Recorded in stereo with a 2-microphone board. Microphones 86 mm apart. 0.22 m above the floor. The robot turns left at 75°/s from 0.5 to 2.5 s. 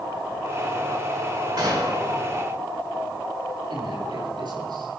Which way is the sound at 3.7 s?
60° right (ahead or behind).